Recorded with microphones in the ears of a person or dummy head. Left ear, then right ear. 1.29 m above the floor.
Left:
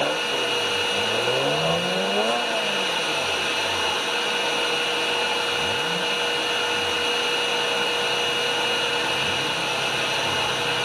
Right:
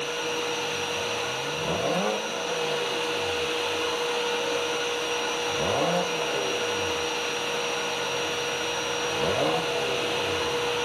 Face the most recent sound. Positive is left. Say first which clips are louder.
# left 5 dB
turn(degrees=35)  # may be behind; listen again after turning